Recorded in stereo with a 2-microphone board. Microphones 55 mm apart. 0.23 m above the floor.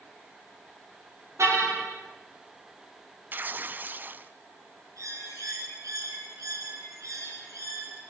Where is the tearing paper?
35° right (ahead or behind), 0.7 m.